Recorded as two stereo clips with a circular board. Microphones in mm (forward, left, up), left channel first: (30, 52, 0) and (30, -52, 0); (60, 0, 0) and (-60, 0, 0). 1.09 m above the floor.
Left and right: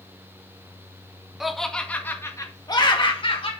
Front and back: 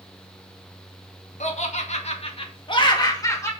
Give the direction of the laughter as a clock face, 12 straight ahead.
12 o'clock.